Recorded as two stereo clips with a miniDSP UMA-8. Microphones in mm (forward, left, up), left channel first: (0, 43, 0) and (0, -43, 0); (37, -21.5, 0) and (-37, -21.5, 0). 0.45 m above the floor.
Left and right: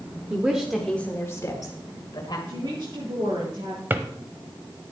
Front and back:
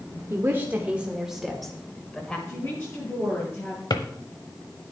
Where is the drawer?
25° right, 0.9 m.